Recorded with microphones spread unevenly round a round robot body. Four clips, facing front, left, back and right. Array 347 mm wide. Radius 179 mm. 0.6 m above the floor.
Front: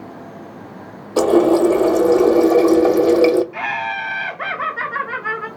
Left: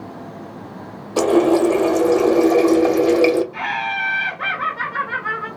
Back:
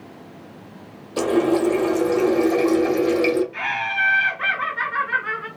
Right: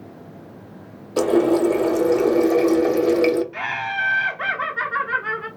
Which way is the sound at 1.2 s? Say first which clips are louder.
Left 2 dB, front 6 dB; 20° left.